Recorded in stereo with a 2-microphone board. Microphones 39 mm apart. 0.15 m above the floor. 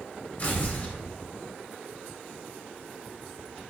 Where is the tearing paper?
35° left (ahead or behind), 1.1 m.